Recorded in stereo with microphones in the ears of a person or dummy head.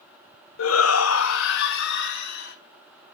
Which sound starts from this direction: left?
A shout, at 0.6 s.